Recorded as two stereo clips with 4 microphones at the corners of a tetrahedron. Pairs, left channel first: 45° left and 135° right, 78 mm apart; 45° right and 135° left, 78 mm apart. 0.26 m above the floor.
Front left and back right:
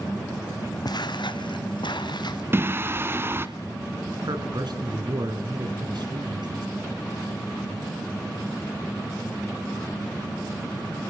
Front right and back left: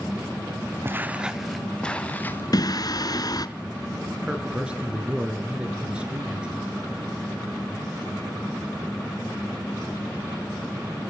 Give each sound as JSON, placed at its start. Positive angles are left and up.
{"t": 0.8, "sound": "footsteps", "azimuth_deg": 75, "distance_m": 1.1}
{"t": 2.5, "sound": "singing", "azimuth_deg": -75, "distance_m": 1.5}
{"t": 4.2, "sound": "a man speaking", "azimuth_deg": -150, "distance_m": 4.0}